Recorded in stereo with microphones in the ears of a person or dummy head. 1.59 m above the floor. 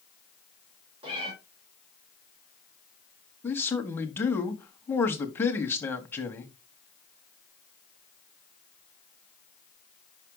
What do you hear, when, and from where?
1.0 s a cat meowing: 35° right (ahead or behind), 2.5 m
3.4 s a man speaking: 15° left (ahead or behind), 0.9 m